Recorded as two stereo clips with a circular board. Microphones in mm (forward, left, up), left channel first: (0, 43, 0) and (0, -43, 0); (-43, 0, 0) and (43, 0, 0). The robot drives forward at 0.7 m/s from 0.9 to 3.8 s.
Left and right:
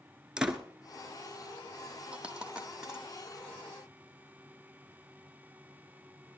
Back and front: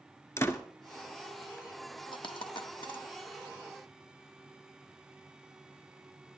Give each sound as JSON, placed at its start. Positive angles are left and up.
{"t": 0.4, "sound": "a door slam", "azimuth_deg": -165, "distance_m": 1.1}
{"t": 2.1, "sound": "a dropped coin", "azimuth_deg": -165, "distance_m": 0.9}